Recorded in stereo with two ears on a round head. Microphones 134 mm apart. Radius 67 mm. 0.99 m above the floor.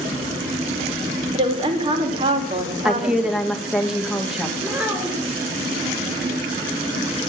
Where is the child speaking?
10° right (ahead or behind), 3.5 m.